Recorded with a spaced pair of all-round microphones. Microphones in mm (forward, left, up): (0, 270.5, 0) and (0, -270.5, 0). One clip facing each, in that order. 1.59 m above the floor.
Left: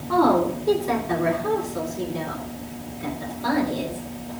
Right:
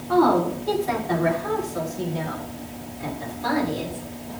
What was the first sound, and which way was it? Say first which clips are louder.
A woman speaking: even; 5° right (ahead or behind).